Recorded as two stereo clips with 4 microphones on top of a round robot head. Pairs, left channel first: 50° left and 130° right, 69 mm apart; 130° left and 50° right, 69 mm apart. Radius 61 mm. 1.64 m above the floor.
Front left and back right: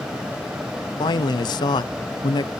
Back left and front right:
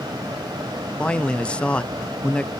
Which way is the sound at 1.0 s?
60° left.